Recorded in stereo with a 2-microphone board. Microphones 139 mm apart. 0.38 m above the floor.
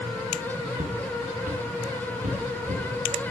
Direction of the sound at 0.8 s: 80° right.